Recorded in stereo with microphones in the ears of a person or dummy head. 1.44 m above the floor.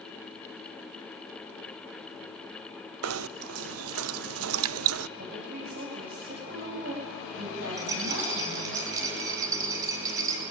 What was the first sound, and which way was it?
Knocking, 85° right.